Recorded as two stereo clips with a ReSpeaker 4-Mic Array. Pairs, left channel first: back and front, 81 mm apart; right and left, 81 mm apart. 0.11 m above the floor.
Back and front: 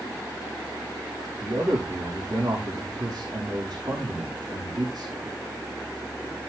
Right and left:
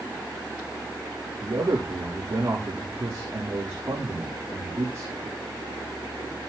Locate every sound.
1.4 s a man speaking: 35° left, 7 m